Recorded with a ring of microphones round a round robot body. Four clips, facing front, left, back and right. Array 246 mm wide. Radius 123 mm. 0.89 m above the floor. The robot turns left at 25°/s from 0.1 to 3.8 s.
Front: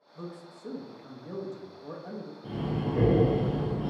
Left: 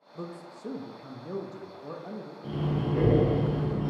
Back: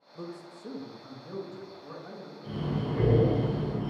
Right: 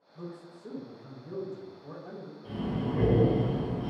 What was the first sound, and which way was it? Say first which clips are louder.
A man speaking: left 3 dB, back 1 dB; 105° left.